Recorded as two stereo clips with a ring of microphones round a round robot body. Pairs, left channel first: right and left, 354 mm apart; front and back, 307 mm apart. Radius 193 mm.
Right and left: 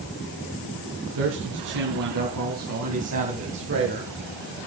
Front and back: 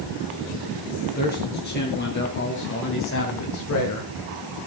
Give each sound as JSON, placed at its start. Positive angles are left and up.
{"t": 1.1, "sound": "a man speaking", "azimuth_deg": 60, "distance_m": 4.0}